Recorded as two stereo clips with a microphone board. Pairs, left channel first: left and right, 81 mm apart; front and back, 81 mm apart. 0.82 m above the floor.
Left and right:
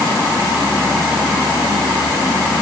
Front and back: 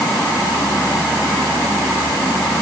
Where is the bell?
I don't hear a bell.